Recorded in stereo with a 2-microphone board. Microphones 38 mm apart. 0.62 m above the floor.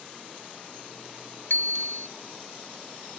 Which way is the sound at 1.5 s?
65° left (ahead or behind).